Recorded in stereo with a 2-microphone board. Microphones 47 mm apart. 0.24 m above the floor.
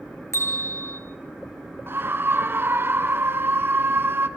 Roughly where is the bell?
Left.